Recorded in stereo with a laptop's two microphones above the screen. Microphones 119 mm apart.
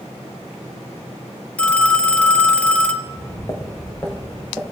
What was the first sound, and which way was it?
A phone ringing, 10° left (ahead or behind).